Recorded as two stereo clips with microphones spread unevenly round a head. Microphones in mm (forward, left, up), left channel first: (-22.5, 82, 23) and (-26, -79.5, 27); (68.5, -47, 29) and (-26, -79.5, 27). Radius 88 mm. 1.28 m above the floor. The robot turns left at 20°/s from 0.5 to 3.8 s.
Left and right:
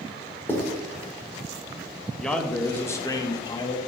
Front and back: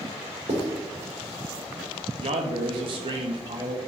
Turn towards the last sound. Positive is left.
turn(degrees=145)